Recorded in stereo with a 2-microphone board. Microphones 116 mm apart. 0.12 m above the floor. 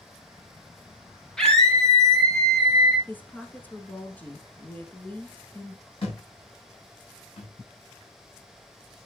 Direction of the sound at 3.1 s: 15° left (ahead or behind).